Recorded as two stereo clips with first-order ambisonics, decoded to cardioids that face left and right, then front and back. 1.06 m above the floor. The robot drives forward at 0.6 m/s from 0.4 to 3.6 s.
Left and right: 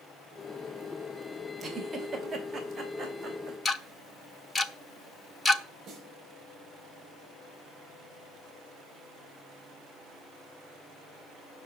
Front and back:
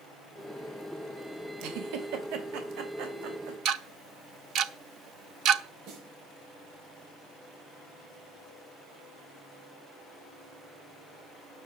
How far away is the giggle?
About 2 m.